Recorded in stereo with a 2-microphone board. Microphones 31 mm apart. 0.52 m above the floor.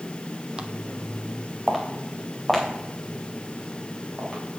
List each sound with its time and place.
0.6 s footsteps: 25° right (ahead or behind), 0.7 m; by 4.4 s 10° left (ahead or behind), 5 m